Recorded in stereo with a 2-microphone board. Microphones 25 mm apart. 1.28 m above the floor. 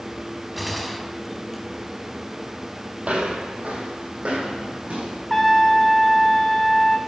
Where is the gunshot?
5° right (ahead or behind), 1.3 m.